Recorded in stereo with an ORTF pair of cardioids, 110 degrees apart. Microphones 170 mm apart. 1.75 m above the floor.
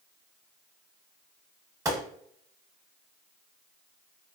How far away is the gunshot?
About 0.8 m.